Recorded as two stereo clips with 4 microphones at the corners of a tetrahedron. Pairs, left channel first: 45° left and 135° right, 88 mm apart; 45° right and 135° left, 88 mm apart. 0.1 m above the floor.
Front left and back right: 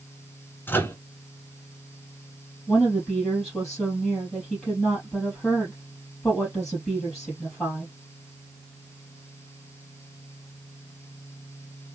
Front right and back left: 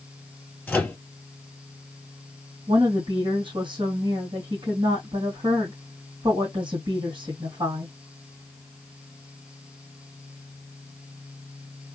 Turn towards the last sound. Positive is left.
turn(degrees=130)